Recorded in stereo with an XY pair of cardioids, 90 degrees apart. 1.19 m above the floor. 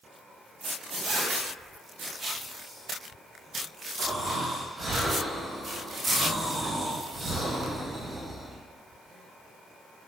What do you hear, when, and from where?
1.0 s a zipper: 65° right, 0.8 m
4.0 s snoring: 35° right, 1.2 m